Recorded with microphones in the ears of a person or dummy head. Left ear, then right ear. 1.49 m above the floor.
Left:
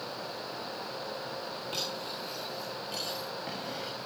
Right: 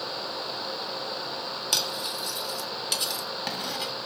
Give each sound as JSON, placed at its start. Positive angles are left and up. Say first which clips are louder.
{"t": 1.7, "sound": "cutlery clinking", "louder": "right 9 dB", "side_deg": -65, "distance_m": 1.5}